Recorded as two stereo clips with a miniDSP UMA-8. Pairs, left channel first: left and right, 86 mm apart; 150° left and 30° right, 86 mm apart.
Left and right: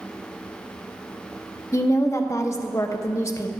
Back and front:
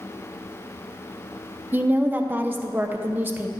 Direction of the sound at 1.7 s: 35° left.